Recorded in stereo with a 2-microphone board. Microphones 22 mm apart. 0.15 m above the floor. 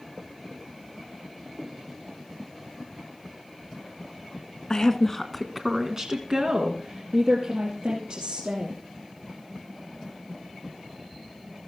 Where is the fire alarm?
No fire alarm in this recording.